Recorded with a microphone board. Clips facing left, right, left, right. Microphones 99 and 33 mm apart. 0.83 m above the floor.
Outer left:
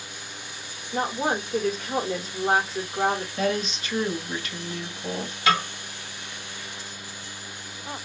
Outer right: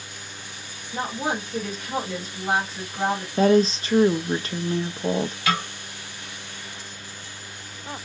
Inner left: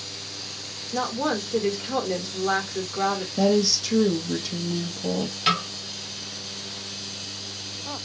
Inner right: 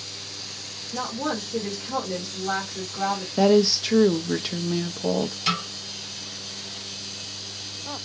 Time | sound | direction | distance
0.9 | a woman speaking | 40° left (ahead or behind) | 1.9 m
3.4 | a woman speaking | 35° right (ahead or behind) | 0.5 m
5.5 | a snare drum | 30° left (ahead or behind) | 1.9 m